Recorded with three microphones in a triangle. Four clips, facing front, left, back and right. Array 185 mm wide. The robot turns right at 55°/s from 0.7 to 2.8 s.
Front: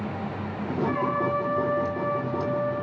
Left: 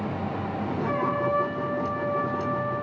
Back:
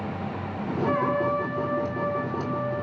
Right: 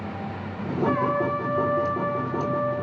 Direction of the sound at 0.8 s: 125° right.